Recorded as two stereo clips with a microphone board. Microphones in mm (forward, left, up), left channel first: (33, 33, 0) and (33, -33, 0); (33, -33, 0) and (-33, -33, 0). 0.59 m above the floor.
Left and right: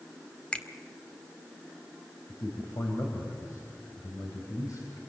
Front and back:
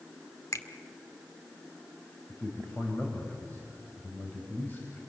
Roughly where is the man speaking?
Ahead left.